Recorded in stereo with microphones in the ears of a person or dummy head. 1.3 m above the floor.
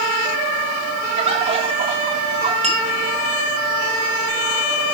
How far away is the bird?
About 3.5 m.